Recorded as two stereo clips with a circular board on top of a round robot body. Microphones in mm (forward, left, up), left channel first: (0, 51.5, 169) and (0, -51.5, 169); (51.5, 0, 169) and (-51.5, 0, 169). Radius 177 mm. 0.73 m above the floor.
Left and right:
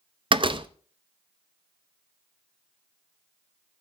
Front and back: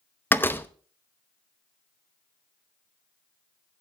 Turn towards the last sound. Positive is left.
turn(degrees=-65)